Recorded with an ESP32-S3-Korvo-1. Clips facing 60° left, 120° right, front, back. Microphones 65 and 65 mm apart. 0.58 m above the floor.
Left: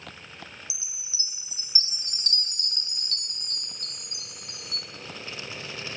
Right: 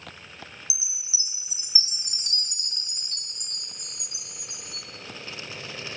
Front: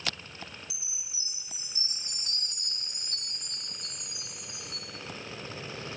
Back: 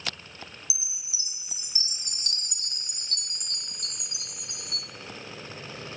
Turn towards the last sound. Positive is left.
turn(degrees=165)